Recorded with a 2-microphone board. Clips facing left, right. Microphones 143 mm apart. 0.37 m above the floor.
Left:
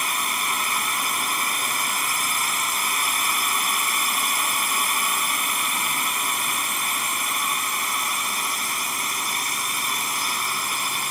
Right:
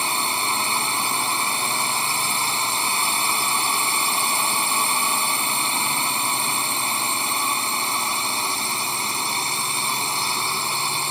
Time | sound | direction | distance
0.0 | a drone | 30° right (ahead or behind) | ?